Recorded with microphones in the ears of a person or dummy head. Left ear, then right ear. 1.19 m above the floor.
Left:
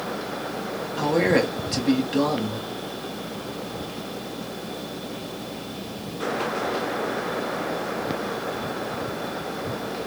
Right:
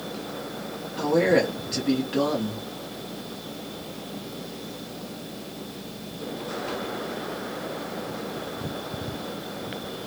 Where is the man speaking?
10° left (ahead or behind), 0.9 m.